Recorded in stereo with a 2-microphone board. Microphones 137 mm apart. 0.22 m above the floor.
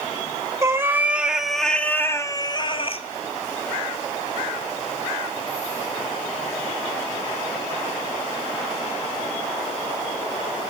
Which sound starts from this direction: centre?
A cat meowing, at 0.6 s.